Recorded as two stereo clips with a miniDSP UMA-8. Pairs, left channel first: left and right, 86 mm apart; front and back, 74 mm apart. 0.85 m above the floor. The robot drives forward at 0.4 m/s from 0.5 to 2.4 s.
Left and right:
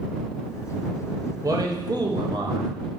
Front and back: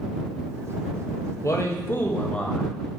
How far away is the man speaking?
About 0.8 m.